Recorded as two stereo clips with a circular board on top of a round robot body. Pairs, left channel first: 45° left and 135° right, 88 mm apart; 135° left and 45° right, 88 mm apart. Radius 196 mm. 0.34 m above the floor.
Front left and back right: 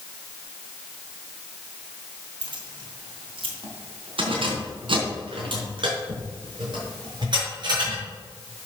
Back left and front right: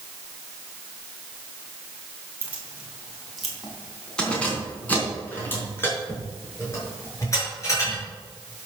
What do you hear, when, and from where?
2.4 s keys jangling: 115° right, 2.5 m; by 8.0 s 170° right, 6.5 m